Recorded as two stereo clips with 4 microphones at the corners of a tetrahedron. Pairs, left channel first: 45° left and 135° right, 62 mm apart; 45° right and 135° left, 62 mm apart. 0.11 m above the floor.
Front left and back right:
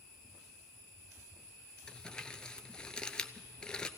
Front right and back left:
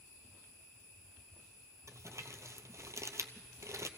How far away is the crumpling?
About 0.6 m.